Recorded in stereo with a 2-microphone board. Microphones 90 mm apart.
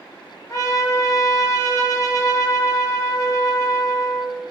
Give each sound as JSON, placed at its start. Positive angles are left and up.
{"t": 0.5, "sound": "a trumpet", "side_deg": 35, "distance_m": 0.7}